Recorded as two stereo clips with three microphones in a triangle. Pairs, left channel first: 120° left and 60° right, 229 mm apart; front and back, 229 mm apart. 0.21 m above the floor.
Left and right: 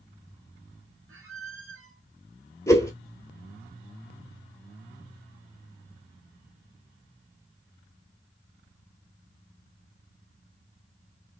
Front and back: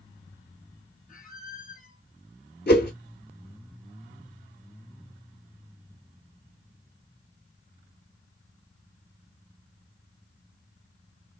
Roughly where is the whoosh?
Ahead left.